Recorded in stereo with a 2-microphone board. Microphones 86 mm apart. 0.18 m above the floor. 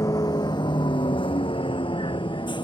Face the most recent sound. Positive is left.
turn(degrees=60)  # may be behind; listen again after turning